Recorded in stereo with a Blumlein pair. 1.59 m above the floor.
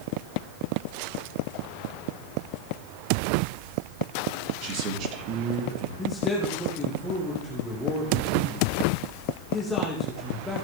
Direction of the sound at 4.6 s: 40° right.